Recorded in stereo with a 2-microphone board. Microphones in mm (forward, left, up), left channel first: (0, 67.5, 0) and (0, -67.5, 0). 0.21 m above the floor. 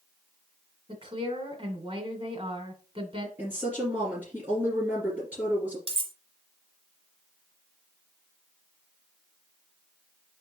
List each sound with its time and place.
0.9 s a woman speaking: 40° right (ahead or behind), 1.9 m
3.4 s a woman speaking: 15° right (ahead or behind), 3 m
5.9 s cutlery clinking: 40° right (ahead or behind), 0.9 m